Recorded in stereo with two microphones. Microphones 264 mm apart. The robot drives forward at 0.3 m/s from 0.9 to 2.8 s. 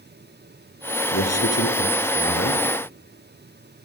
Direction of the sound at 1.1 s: 70° left (ahead or behind).